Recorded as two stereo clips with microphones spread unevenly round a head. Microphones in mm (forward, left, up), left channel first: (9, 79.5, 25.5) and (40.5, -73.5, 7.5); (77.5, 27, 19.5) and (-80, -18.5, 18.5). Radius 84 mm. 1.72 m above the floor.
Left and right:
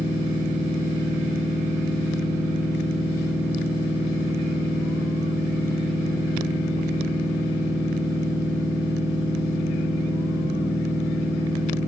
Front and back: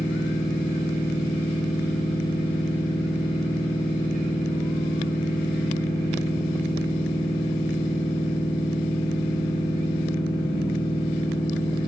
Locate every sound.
0.0 s a machine running: 10° right, 1.5 m